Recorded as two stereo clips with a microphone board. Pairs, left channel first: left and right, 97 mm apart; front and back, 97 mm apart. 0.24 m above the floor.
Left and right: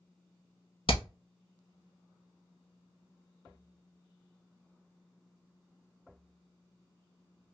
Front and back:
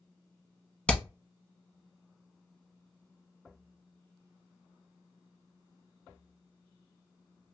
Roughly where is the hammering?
Left.